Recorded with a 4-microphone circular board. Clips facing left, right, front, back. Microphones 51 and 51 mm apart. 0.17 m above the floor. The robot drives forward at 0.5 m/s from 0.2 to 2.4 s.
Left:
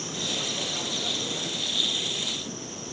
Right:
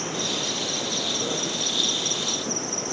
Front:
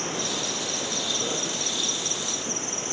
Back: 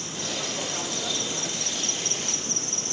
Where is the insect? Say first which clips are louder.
Right 4 dB, front 3 dB; 45° right, 3 m; by 2.9 s 70° right, 2 m.